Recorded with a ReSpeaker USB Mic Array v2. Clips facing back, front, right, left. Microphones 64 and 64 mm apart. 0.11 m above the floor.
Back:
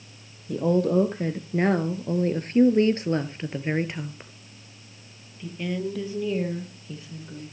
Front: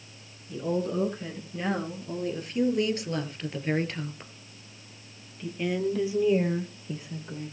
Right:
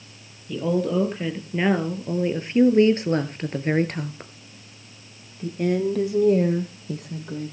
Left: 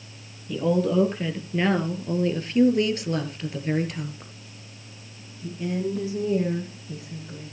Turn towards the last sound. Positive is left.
turn(degrees=-70)